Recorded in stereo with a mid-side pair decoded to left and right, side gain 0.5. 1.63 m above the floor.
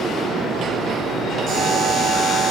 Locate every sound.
1.5 s a buzzer: 65° right, 3.5 m